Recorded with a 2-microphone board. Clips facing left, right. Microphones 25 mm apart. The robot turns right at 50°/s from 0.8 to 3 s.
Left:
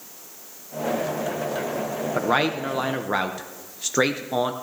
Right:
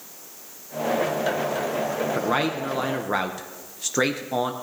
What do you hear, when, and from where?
2.1 s a man speaking: 20° left (ahead or behind), 0.5 m; by 4.5 s 10° left (ahead or behind), 0.5 m